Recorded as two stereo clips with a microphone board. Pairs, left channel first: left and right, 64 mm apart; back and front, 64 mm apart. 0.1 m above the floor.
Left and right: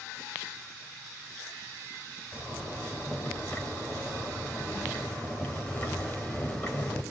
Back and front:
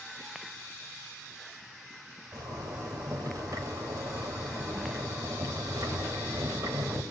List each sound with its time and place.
2.3 s a zipper: 30° left, 4 m